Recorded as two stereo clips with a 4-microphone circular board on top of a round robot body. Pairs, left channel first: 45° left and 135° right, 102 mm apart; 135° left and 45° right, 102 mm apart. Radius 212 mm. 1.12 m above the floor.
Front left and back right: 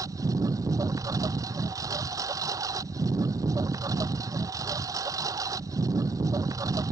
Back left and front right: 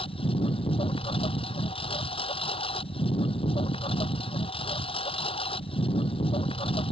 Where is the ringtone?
No ringtone in this recording.